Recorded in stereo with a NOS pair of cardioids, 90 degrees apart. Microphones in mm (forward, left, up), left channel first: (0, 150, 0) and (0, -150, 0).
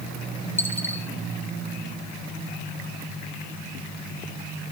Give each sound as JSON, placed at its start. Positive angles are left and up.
{"t": 0.6, "sound": "a dropped coin", "azimuth_deg": 5, "distance_m": 4.5}